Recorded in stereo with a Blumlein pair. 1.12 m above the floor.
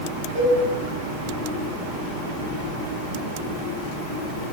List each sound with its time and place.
0.3 s a cowbell: 60° right, 1.2 m